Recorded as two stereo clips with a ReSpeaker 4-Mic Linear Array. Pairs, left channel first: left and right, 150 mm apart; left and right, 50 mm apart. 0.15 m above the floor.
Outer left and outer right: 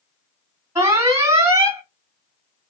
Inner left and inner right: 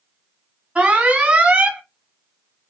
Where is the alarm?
20° right (ahead or behind), 1.3 m.